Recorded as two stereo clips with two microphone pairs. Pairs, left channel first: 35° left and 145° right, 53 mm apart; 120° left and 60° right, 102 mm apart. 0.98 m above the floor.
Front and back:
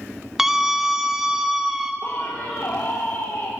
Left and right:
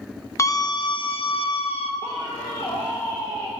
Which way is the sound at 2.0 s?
60° left.